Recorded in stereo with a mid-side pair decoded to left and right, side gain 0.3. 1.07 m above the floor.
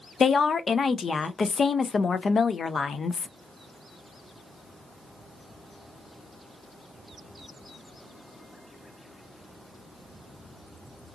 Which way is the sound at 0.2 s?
55° left.